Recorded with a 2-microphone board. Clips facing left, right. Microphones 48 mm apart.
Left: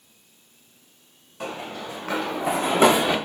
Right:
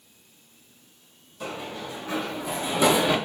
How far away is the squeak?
No squeak in this recording.